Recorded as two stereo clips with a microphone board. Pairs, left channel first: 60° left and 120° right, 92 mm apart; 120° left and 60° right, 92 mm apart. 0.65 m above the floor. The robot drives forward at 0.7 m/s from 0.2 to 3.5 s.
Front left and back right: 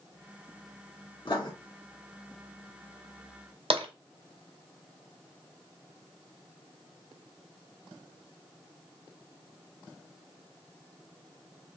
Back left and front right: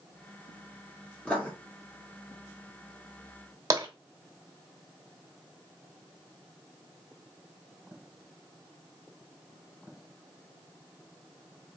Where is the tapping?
115° right, 1.0 m.